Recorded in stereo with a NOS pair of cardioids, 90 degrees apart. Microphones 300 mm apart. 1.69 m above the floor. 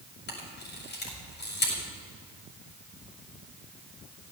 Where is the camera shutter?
35° left, 6 m.